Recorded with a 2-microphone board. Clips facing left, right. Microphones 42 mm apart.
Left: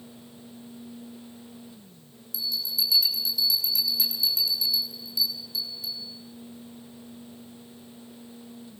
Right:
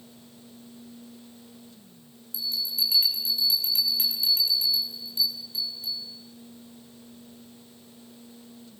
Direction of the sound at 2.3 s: 40° right (ahead or behind).